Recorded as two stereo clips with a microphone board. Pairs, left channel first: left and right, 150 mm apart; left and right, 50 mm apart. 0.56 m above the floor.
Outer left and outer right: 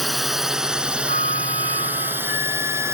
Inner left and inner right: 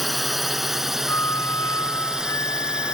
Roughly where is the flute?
Left.